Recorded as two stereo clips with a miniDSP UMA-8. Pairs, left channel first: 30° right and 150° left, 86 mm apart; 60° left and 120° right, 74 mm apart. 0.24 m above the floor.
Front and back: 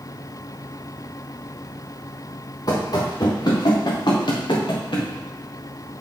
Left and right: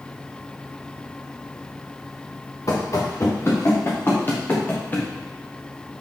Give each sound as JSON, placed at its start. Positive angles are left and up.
{"t": 2.7, "sound": "running footsteps", "azimuth_deg": 15, "distance_m": 2.0}